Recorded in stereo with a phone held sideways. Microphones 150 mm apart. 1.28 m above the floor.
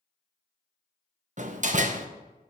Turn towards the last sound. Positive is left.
turn(degrees=-50)  # may be behind; listen again after turning